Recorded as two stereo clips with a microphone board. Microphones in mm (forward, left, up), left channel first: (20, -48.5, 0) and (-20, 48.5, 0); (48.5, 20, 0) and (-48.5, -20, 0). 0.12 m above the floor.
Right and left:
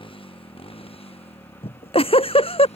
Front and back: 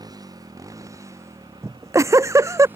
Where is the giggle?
95° right.